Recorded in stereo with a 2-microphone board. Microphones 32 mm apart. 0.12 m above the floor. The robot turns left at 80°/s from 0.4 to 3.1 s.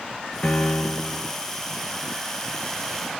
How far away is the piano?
About 0.8 m.